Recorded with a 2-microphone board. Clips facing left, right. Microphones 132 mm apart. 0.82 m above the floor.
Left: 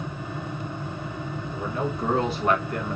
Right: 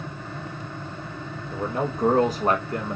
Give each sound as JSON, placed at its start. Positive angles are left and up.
{"t": 1.5, "sound": "a man speaking", "side_deg": -55, "distance_m": 1.2}